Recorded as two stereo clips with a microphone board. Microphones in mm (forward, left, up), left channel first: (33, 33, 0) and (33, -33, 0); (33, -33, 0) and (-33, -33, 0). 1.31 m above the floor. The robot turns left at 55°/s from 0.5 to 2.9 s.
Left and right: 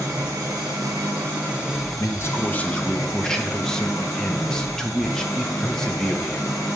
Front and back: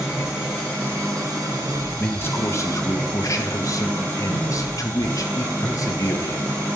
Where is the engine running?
105° right, 2.5 m; by 6.8 s 125° left, 2.5 m.